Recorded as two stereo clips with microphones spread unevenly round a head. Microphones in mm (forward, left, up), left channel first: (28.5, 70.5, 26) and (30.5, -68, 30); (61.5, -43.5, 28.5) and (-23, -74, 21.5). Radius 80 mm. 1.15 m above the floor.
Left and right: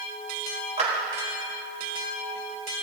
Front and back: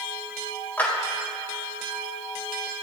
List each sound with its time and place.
0.8 s a clap: 50° right, 4.5 m